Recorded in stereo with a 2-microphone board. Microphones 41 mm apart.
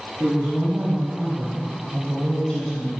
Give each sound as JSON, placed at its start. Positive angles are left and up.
{"t": 0.2, "sound": "a woman speaking", "side_deg": -35, "distance_m": 1.9}